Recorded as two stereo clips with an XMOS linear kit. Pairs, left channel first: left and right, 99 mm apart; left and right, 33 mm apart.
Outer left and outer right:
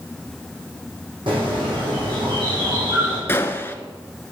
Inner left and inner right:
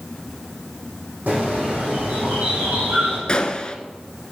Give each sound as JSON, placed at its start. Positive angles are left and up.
{"t": 1.3, "sound": "a bird", "side_deg": -60, "distance_m": 6.0}
{"t": 3.3, "sound": "a gunshot", "side_deg": 25, "distance_m": 0.8}